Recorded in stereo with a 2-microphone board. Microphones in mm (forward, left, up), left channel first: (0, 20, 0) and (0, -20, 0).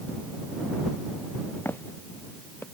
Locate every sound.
1.6 s footsteps: 75° left (ahead or behind)